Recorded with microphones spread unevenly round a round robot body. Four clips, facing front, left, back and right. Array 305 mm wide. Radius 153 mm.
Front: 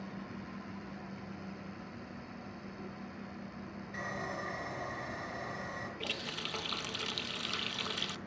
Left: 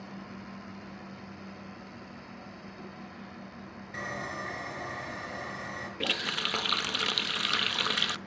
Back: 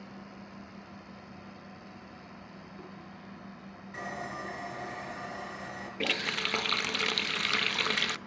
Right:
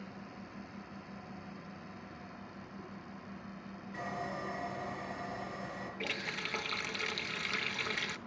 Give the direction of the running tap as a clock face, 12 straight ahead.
7 o'clock.